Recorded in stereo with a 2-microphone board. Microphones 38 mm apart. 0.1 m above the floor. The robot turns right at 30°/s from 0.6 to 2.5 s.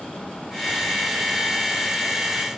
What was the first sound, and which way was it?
Only background noise.